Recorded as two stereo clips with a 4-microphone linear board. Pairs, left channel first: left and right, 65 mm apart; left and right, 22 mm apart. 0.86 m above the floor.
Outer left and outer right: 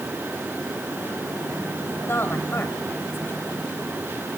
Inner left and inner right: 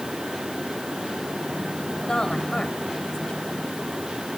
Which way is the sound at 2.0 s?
35° left (ahead or behind).